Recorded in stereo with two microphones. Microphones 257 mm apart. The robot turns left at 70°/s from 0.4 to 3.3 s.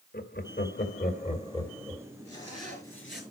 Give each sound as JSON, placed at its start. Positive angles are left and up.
{"t": 0.1, "sound": "laughter", "side_deg": 40, "distance_m": 1.7}
{"t": 2.2, "sound": "a zipper", "azimuth_deg": 110, "distance_m": 5.5}